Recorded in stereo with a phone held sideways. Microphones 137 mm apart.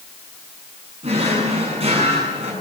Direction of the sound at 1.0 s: 45° right (ahead or behind).